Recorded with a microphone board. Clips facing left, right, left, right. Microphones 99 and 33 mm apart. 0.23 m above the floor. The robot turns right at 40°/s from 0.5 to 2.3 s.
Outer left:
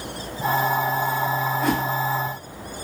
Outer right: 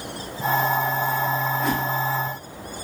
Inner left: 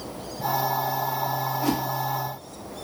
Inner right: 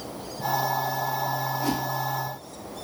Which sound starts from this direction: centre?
A whoosh, at 1.6 s.